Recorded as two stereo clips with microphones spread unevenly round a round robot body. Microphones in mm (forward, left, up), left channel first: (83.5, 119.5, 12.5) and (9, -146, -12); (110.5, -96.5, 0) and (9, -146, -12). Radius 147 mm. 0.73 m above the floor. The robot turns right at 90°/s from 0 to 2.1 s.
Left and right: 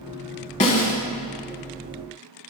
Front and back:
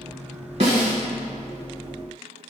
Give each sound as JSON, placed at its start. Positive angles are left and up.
{"t": 0.6, "sound": "a snare drum", "azimuth_deg": 140, "distance_m": 1.7}